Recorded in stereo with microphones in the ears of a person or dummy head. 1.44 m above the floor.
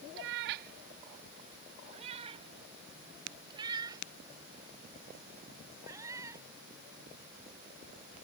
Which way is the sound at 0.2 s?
60° right (ahead or behind).